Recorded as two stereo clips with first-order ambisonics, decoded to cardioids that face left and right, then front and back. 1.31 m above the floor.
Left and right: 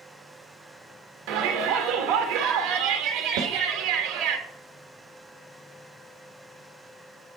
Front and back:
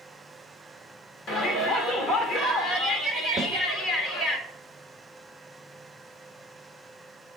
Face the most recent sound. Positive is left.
turn(degrees=-115)